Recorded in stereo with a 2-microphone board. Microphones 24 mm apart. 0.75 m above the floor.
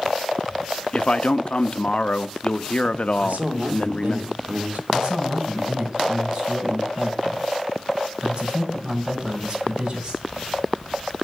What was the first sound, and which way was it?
A man speaking, 45° left (ahead or behind).